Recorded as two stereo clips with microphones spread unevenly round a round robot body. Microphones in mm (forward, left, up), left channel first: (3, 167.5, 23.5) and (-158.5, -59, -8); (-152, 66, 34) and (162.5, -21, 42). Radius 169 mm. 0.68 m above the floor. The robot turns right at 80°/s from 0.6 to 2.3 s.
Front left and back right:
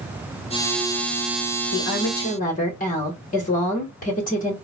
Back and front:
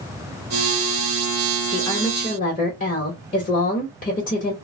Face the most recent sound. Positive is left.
turn(degrees=110)